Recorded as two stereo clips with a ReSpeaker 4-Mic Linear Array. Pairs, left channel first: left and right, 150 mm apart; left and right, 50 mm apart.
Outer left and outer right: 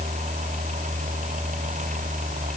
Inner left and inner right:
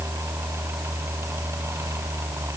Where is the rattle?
No rattle in this recording.